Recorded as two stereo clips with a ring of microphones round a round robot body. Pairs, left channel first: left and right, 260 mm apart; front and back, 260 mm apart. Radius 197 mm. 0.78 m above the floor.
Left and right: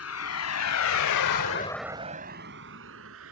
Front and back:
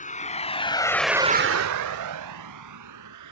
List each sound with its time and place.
0.0 s a vehicle: 60° left; by 3.3 s 145° right